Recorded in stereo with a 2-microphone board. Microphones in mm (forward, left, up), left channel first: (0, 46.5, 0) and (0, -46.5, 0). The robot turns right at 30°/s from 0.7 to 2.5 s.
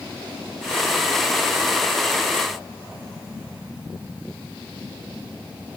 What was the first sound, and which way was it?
Only background noise.